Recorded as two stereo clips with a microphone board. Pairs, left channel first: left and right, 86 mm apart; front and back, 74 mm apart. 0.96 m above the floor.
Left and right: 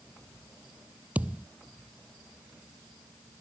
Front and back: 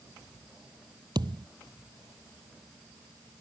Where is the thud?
165° right.